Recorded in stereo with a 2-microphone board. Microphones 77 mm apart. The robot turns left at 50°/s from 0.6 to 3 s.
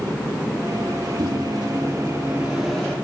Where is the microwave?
100° right, 2.5 m; by 3.0 s 170° left, 2.5 m.